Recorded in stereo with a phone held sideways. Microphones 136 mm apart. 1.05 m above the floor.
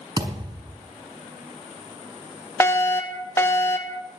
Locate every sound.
0.2 s a thud: 45° right (ahead or behind), 5 m
2.6 s a fire alarm: 20° left (ahead or behind), 1.3 m